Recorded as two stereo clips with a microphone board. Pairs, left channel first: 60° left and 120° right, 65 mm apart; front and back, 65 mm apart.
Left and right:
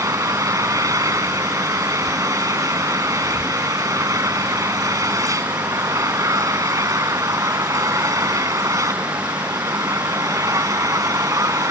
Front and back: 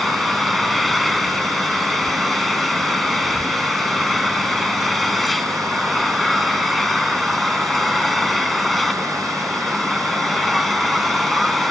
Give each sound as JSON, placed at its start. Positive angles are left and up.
{"t": 0.0, "sound": "an engine running", "azimuth_deg": -90}